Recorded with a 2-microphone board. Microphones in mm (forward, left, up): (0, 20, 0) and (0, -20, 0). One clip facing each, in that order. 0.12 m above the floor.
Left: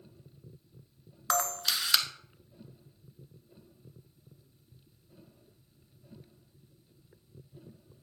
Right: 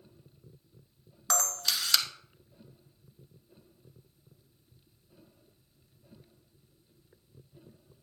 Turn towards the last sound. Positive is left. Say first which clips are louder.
# left 1 dB
turn(degrees=15)  # may be behind; listen again after turning